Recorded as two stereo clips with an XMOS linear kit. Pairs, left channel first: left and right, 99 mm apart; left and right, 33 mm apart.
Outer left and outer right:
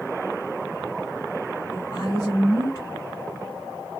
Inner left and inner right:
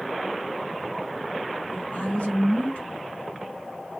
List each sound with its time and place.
1.7 s a woman speaking: 40° left (ahead or behind), 1.5 m